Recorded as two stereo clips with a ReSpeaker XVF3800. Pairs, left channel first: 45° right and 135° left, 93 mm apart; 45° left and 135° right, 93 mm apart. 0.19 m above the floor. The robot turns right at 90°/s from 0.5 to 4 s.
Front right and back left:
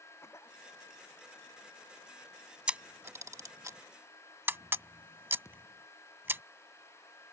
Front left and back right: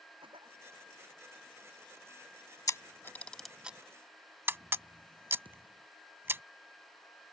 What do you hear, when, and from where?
0.2 s a cough: 105° right; by 0.6 s 100° right
2.7 s a camera shutter: 60° left; by 6.4 s straight behind
5.5 s a thud: 110° right